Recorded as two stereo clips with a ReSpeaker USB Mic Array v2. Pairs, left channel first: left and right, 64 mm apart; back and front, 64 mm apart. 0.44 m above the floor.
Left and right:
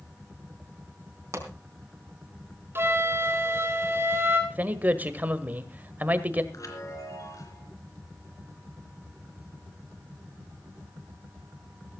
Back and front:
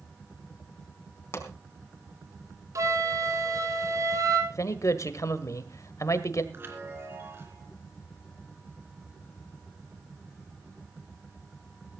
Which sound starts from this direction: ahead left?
A chime, at 6.5 s.